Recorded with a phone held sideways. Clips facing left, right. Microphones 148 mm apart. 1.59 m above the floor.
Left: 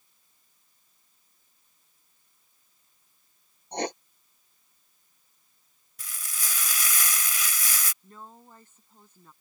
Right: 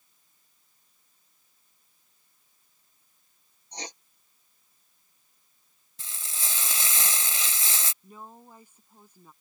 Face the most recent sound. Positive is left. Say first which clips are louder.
# right 1 dB
turn(degrees=-10)  # may be behind; listen again after turning